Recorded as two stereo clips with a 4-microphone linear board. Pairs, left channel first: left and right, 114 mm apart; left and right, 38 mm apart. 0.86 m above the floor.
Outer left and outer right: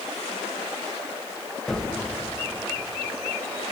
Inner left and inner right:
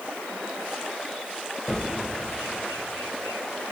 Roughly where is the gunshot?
Centre.